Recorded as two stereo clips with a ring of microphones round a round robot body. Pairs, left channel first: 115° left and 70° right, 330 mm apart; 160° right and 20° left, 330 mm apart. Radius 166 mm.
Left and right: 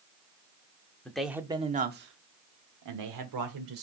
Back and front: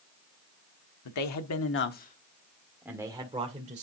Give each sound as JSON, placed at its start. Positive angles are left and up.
{"t": 1.1, "sound": "a man speaking", "azimuth_deg": -160, "distance_m": 1.4}